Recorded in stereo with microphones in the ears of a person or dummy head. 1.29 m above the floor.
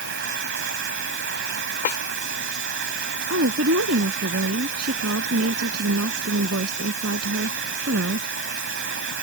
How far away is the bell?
No bell in this recording.